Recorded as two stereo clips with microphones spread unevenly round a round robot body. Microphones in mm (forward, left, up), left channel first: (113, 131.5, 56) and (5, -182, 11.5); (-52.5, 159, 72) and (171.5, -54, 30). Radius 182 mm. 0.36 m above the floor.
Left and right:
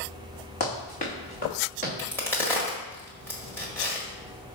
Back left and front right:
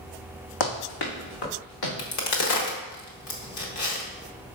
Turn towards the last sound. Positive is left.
turn(degrees=160)